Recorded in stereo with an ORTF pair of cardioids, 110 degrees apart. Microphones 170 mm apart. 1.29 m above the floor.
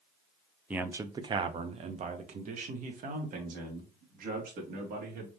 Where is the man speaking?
10° right, 0.6 m; by 5.3 s 65° right, 2.5 m.